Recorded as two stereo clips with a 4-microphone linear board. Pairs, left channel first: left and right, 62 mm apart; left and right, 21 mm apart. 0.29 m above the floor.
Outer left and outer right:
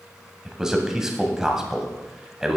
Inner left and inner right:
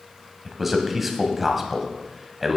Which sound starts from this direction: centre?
A man speaking, at 0.5 s.